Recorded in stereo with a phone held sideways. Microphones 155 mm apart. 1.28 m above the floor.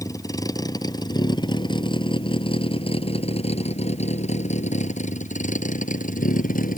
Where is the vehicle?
20° left (ahead or behind); by 6.8 s 65° left (ahead or behind).